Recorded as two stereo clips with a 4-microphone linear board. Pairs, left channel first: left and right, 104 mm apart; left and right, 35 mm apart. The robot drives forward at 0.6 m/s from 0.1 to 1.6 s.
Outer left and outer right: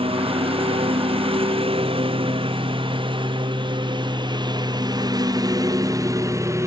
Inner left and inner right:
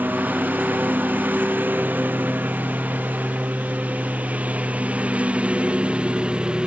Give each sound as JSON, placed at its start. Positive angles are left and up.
{"t": 0.0, "sound": "a lawn mower", "side_deg": -65}